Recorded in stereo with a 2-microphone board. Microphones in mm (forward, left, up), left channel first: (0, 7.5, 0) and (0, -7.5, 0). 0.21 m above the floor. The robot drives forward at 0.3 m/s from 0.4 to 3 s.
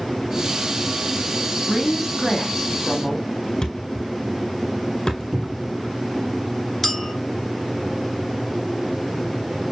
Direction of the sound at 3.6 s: 55° left (ahead or behind).